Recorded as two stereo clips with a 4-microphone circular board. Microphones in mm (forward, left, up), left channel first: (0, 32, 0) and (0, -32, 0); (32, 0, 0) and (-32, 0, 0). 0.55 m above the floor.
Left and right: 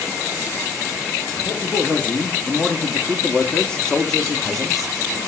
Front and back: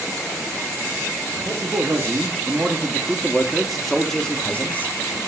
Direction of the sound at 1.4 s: 150° left.